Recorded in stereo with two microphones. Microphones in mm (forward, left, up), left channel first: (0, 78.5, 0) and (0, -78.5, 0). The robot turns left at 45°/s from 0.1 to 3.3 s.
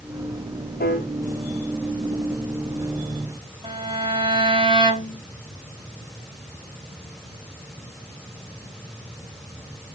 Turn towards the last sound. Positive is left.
turn(degrees=-30)  # may be behind; listen again after turning